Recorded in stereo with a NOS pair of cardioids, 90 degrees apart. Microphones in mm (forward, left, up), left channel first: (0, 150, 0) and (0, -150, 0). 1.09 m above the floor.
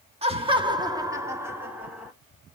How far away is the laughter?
About 1.9 m.